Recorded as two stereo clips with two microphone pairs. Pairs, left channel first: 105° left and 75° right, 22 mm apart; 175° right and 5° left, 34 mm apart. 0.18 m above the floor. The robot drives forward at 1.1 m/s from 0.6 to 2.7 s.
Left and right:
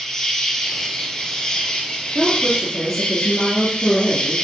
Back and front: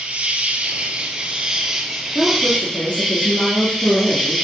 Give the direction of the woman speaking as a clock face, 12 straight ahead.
5 o'clock.